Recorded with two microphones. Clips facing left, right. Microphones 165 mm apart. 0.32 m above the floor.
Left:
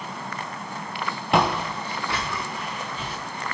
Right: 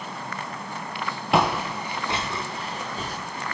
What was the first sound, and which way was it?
Footsteps, centre (ahead or behind).